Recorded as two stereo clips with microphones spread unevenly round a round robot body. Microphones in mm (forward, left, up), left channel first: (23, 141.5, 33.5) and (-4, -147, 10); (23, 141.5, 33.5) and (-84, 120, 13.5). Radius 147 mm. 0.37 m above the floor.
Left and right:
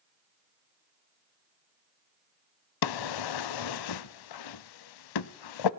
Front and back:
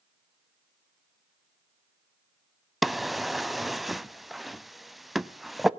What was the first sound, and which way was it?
A drawer, 100° left.